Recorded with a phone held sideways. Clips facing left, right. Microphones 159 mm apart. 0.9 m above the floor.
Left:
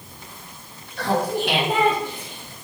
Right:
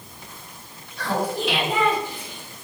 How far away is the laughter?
About 2.5 m.